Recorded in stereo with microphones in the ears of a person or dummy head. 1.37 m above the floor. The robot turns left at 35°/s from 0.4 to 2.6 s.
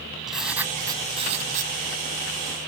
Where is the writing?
5° right; by 1.7 s 50° right.